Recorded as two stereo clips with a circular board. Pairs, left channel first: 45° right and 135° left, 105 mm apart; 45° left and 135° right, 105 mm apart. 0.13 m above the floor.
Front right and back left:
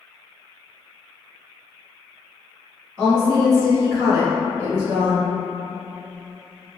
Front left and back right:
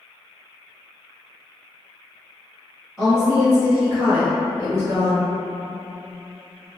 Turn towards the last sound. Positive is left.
turn(degrees=-160)